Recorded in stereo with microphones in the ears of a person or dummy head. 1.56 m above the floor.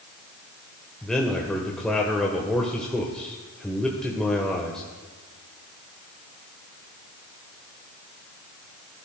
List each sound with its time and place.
1.0 s a man speaking: 5° left (ahead or behind), 1.1 m